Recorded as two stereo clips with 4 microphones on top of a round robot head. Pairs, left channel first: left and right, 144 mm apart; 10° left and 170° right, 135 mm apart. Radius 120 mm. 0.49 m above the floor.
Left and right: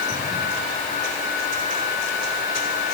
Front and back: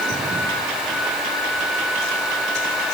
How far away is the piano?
I don't hear a piano.